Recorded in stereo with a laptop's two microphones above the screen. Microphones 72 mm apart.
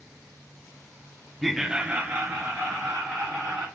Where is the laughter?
Centre (ahead or behind), 0.6 m; by 3.6 s 25° right (ahead or behind), 1.8 m.